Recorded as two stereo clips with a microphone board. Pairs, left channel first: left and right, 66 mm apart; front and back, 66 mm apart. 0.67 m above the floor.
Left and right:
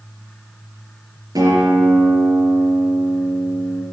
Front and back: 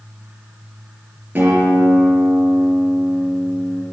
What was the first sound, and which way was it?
A guitar, 115° right.